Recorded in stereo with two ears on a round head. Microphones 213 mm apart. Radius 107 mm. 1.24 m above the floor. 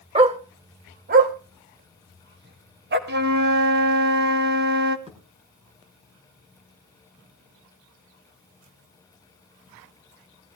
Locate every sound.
0.1 s a dog barking: 25° right (ahead or behind), 1.0 m; by 3.0 s 45° right (ahead or behind), 2 m
3.1 s a flute: 45° right (ahead or behind), 1.0 m
5.1 s a thud: 25° right (ahead or behind), 5.5 m